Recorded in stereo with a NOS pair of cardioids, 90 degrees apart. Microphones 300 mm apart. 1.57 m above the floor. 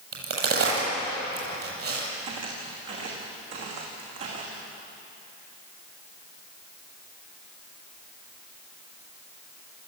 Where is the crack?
50° right, 9 m.